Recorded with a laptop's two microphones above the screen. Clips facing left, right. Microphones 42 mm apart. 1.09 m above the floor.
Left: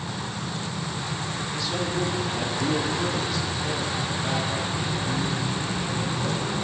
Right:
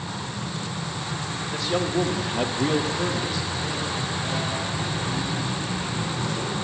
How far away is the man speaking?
About 2 m.